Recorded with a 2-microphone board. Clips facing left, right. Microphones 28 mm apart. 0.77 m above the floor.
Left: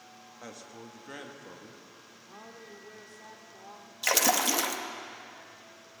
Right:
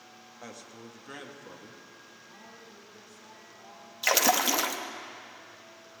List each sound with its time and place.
0.4 s a man speaking: centre (ahead or behind), 1.3 m
2.3 s a woman speaking: 60° left (ahead or behind), 2 m
4.0 s a splash: 5° right (ahead or behind), 0.8 m